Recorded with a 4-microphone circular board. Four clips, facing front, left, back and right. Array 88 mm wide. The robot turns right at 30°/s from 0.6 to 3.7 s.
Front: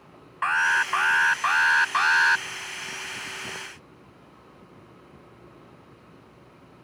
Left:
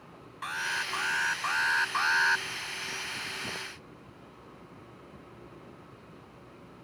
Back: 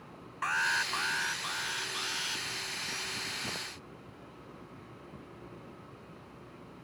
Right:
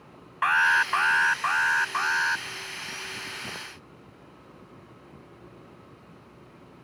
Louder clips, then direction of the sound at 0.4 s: Right 12 dB, front 8 dB; 55° right.